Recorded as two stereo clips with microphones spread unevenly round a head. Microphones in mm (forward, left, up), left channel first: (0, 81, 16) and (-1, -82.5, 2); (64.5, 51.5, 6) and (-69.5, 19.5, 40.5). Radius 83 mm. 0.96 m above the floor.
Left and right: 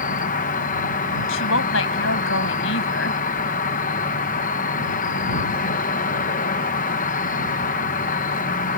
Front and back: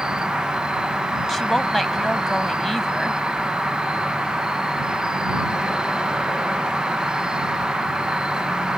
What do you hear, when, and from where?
0.0 s an insect: 95° left
1.3 s a woman speaking: 105° left